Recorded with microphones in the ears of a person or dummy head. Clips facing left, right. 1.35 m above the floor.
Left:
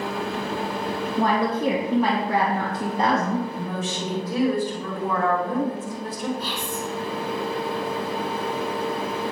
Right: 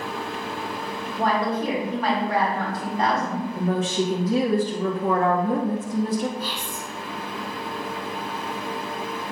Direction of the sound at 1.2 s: 70° left (ahead or behind).